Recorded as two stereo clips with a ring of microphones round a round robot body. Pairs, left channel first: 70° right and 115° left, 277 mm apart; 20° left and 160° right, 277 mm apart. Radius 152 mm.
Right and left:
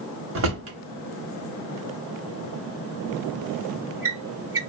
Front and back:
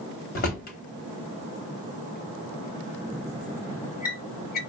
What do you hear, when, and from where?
0.3 s a drawer: 75° left, 0.9 m